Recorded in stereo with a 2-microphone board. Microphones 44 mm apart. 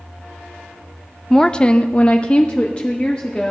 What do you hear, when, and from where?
1.3 s a woman speaking: 10° left (ahead or behind), 0.6 m; by 3.5 s 25° left (ahead or behind), 1.6 m